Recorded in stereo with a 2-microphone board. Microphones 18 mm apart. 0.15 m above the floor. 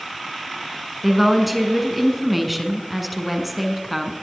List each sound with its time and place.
1.0 s a woman speaking: 10° right (ahead or behind), 1.8 m